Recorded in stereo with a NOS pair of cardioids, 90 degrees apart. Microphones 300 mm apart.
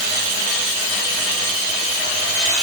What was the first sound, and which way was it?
Only background noise.